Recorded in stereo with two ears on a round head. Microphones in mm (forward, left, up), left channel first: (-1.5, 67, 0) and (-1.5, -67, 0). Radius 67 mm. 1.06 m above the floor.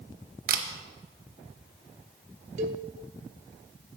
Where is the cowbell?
50° right (ahead or behind), 0.8 m.